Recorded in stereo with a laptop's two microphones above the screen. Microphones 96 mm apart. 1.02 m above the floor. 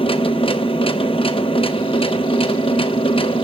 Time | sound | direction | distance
0.0 | a machine running | 70° left (ahead or behind) | 0.8 m